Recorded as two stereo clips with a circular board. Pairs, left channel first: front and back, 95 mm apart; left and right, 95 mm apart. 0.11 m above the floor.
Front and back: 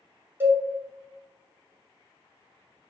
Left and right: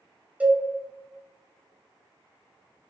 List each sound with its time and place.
0.4 s a cowbell: 145° right, 0.8 m